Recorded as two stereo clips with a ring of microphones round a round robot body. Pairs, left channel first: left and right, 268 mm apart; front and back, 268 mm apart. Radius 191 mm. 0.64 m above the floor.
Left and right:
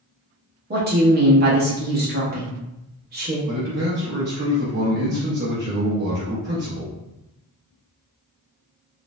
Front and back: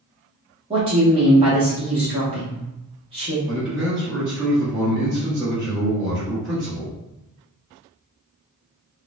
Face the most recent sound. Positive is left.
turn(degrees=-100)